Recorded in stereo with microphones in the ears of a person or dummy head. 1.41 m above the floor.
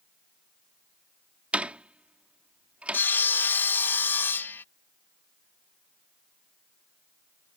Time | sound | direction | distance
1.5 | a door slam | 5° right (ahead or behind) | ?
2.9 | sawing | 10° left (ahead or behind) | ?